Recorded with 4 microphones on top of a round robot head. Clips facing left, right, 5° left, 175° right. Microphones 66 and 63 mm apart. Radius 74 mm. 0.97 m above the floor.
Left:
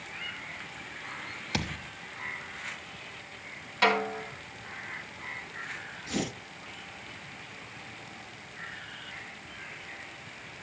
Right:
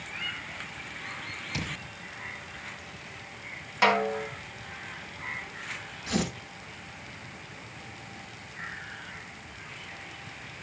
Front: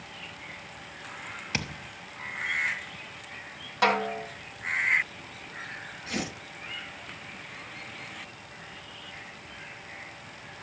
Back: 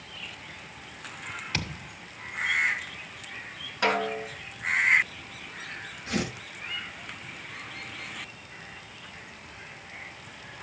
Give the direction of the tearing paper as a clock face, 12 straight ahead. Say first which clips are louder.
Right 3 dB, back 3 dB; 3 o'clock.